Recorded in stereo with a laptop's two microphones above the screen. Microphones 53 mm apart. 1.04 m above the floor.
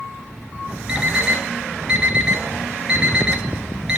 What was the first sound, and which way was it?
An alarm clock, 15° right (ahead or behind).